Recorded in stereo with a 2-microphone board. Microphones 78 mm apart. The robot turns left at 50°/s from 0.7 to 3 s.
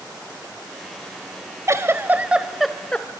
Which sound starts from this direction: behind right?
A giggle, at 1.7 s.